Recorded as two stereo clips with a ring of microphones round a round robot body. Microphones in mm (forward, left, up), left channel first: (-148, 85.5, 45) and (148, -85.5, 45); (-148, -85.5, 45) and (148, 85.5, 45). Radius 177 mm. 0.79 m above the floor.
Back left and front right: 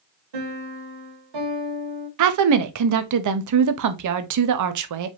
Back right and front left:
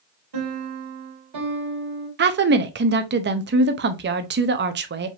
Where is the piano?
10° right, 2 m.